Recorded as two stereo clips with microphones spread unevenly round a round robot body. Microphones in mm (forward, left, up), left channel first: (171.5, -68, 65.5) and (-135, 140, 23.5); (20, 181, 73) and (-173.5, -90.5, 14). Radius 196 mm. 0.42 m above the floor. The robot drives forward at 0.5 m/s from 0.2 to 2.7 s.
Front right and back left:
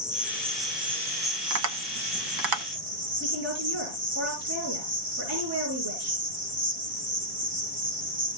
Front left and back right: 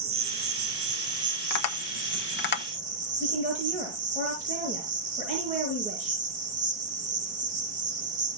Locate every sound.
0.0 s an insect: 135° right, 1.3 m; by 8.4 s 160° right, 2 m
1.5 s tapping: 95° left, 1.3 m; by 2.6 s 120° left, 1.5 m
3.2 s a woman speaking: 170° left, 6.5 m